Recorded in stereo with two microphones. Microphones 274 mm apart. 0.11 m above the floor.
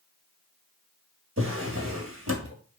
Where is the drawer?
55° right (ahead or behind), 0.8 m.